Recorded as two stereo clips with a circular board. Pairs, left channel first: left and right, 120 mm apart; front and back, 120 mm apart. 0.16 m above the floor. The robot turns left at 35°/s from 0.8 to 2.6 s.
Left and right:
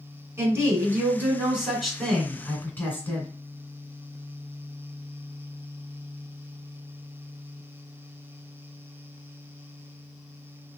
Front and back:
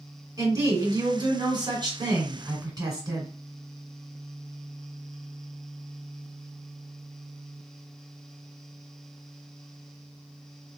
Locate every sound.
0.4 s a woman speaking: 145° right, 1.5 m; by 3.3 s 155° left, 1.5 m